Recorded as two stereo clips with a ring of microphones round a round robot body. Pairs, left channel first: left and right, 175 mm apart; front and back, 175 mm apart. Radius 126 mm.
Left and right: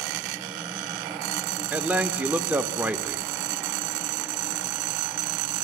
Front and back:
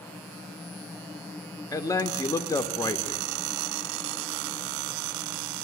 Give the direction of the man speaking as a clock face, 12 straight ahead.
1 o'clock.